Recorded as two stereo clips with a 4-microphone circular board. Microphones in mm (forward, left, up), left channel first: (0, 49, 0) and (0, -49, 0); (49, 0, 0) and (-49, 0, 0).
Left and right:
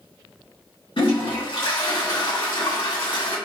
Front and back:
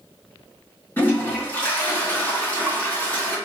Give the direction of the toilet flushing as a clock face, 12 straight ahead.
10 o'clock.